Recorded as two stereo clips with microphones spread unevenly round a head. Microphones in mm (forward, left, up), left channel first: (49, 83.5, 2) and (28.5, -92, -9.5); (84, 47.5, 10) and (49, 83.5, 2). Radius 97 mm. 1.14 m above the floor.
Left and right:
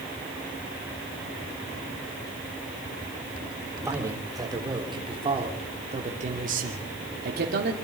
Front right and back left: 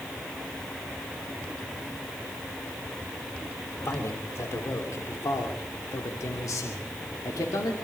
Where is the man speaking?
25° right, 3 m; by 7.7 s 70° right, 2.5 m.